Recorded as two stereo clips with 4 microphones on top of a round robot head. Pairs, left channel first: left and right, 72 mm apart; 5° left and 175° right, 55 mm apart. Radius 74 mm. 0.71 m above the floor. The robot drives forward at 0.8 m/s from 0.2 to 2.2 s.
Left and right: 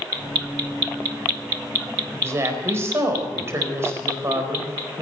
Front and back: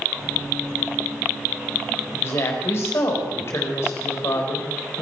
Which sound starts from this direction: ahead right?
A woman speaking, at 2.1 s.